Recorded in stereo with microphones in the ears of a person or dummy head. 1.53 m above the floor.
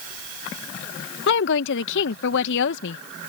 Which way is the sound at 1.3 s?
65° left (ahead or behind).